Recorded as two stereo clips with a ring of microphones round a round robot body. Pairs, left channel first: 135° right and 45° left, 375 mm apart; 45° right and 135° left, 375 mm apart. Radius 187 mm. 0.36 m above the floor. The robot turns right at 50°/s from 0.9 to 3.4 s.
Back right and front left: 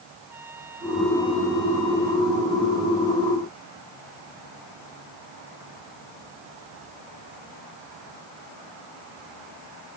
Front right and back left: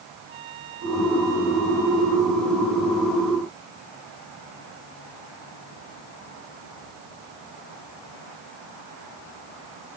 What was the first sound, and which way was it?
A trumpet, 130° left.